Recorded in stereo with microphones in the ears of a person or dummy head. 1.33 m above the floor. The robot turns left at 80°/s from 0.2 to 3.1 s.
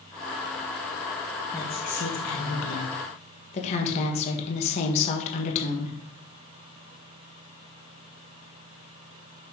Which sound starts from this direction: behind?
A woman speaking, at 1.5 s.